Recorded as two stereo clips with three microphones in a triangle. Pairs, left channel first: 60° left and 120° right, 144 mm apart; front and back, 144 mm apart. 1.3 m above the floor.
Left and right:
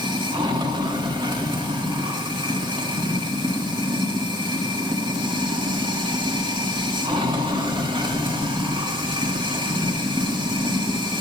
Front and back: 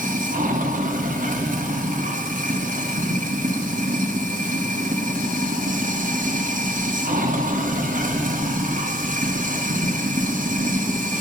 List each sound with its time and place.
0.0 s running water: 175° right, 1.8 m